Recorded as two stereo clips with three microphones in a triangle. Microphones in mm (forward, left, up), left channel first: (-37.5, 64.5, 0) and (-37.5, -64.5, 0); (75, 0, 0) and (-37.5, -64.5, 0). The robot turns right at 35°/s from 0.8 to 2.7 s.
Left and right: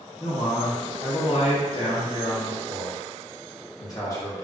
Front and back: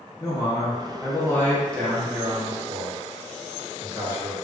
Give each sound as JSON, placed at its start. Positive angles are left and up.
{"t": 0.2, "sound": "a man speaking", "azimuth_deg": 80, "distance_m": 0.8}